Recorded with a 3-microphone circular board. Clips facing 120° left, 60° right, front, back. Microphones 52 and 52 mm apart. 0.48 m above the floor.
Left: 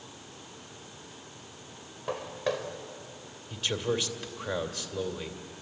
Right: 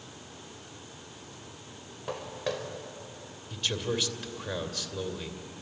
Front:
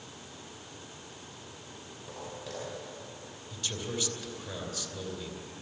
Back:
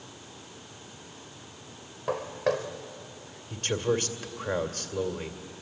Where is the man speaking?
155° right, 2.0 m.